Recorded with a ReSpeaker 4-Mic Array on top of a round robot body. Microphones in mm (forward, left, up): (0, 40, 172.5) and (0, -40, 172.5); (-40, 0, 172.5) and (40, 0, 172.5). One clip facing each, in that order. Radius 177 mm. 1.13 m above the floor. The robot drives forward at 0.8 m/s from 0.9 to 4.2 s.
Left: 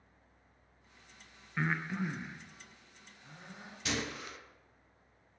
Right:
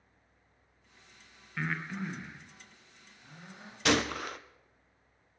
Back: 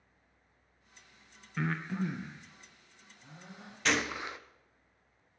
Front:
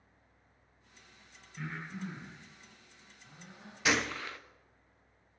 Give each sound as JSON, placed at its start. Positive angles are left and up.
{"t": 1.6, "sound": "breathing", "azimuth_deg": 165, "distance_m": 0.5}
{"t": 3.9, "sound": "a gunshot", "azimuth_deg": -80, "distance_m": 0.6}